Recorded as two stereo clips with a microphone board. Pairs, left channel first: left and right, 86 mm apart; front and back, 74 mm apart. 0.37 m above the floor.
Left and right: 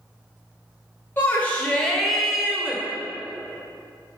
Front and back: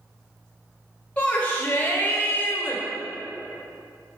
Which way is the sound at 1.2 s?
55° left.